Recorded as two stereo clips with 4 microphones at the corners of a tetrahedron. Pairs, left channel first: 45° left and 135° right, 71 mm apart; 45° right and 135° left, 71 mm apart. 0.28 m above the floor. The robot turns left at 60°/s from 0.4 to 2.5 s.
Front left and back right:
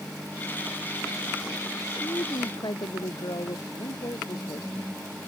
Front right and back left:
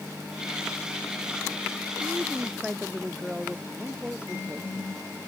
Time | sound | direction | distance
2.0 | a woman speaking | 85° left | ?
3.8 | a man speaking | 60° left | ?